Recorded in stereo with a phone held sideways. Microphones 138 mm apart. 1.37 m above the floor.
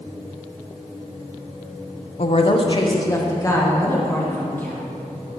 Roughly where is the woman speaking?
Left.